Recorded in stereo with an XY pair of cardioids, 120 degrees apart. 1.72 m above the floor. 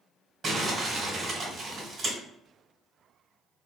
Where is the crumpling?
40° right, 1.5 m.